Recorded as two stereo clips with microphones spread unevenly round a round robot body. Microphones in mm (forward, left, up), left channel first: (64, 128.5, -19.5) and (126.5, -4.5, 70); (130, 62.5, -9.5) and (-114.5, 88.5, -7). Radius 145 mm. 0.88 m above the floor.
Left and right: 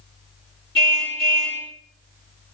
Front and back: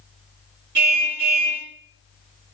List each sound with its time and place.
0.8 s a car horn: 175° right, 6 m